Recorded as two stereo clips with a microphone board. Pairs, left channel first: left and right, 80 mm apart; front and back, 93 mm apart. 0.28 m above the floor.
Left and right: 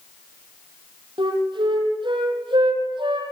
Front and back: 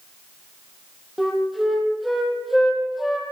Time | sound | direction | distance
1.2 | a flute | 90° right | 6 m